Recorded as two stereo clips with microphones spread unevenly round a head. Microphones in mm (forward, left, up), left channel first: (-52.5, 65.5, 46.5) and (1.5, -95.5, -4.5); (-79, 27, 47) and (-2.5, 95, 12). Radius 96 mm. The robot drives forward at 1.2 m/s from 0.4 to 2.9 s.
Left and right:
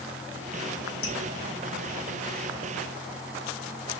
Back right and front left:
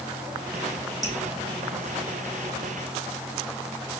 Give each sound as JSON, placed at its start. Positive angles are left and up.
{"t": 1.0, "sound": "dripping", "azimuth_deg": 100, "distance_m": 4.5}